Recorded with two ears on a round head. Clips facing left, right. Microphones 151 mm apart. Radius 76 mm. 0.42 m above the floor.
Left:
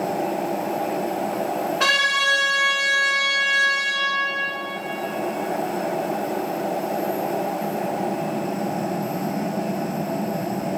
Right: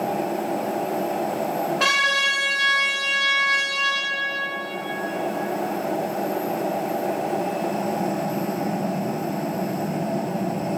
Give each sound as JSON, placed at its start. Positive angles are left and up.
{"t": 1.8, "sound": "a trumpet", "side_deg": 0, "distance_m": 0.9}